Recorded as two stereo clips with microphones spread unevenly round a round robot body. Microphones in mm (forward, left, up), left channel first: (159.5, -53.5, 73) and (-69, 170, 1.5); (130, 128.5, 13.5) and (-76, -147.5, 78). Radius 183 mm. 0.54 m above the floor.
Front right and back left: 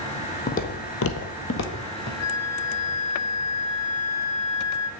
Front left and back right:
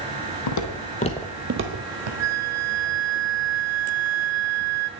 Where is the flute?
85° right, 0.7 m.